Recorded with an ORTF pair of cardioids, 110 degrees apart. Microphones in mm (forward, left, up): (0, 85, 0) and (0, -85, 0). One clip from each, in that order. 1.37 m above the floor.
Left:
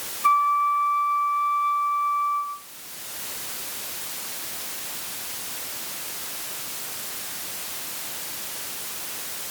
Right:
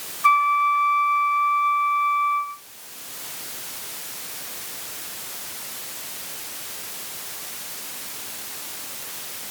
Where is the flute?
30° right, 0.5 m.